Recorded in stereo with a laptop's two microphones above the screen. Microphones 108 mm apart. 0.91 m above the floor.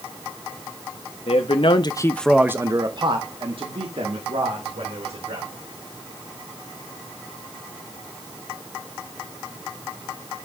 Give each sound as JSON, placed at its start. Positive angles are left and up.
{"t": 1.3, "sound": "a man speaking", "side_deg": 65, "distance_m": 1.2}